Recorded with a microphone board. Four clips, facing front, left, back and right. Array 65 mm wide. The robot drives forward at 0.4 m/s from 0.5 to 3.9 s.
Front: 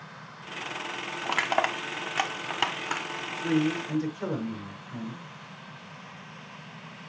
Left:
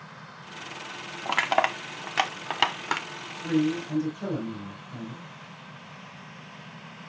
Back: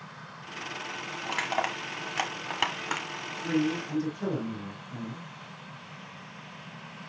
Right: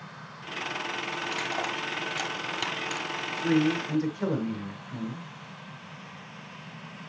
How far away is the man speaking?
About 5.5 m.